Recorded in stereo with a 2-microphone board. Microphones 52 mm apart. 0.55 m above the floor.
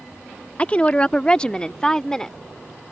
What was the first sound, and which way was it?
A woman speaking, 25° left (ahead or behind).